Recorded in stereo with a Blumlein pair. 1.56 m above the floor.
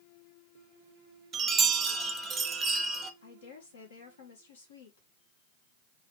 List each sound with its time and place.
1.3 s a chime: 20° right, 0.7 m
3.2 s a woman speaking: 65° left, 1.7 m